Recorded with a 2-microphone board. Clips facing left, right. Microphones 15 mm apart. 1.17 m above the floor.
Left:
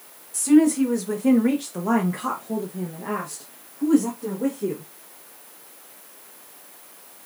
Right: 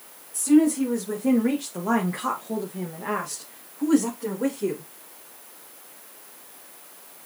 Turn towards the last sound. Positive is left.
turn(degrees=-70)  # may be behind; listen again after turning